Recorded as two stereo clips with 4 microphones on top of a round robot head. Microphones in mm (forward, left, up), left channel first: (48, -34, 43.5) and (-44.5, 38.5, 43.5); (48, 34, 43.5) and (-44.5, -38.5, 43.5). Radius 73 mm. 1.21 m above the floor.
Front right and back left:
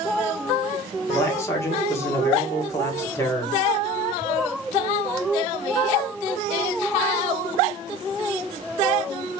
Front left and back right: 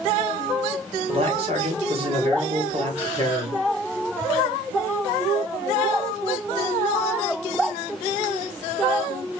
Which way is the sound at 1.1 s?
105° right.